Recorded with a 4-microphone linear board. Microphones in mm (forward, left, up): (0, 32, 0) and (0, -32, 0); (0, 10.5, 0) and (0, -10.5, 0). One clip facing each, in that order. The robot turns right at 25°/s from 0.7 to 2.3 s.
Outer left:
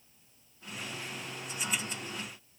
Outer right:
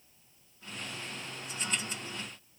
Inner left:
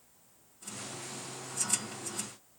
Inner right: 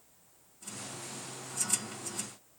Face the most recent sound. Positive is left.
No sound to turn to.